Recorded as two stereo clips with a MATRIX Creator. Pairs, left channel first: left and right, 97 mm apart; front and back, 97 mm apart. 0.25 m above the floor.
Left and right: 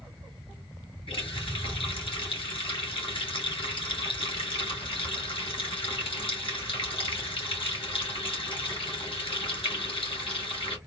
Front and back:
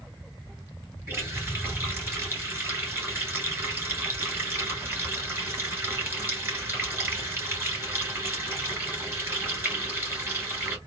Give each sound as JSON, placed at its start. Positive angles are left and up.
{"t": 1.1, "sound": "a running tap", "azimuth_deg": 115, "distance_m": 2.5}